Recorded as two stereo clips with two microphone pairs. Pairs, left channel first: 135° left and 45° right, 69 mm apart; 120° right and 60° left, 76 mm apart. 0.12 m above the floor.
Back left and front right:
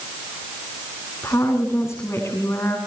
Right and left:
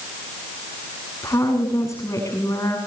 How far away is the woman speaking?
About 8 m.